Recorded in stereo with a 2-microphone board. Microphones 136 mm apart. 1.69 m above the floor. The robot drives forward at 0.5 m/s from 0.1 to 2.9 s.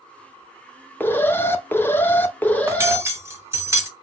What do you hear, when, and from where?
1.0 s an alarm: 15° left (ahead or behind), 0.7 m; by 3.0 s 10° left (ahead or behind), 0.9 m
2.7 s cutlery clinking: 20° right (ahead or behind), 1.1 m